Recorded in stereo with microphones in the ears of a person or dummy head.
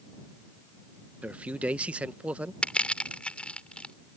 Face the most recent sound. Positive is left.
turn(degrees=5)  # may be behind; listen again after turning